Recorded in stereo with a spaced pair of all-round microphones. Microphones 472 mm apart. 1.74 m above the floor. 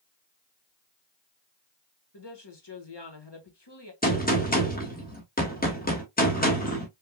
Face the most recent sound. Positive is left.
turn(degrees=20)  # may be behind; listen again after turning